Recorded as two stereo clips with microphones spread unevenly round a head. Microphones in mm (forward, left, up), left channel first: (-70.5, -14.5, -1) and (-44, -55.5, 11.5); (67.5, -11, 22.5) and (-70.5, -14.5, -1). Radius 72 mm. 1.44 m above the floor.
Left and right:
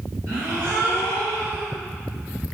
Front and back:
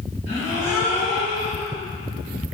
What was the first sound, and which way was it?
A gasp, 40° right.